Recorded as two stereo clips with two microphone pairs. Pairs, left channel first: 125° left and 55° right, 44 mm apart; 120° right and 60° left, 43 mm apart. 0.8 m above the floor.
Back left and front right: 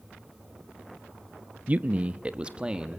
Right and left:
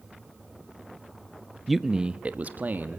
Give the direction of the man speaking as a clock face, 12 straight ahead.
1 o'clock.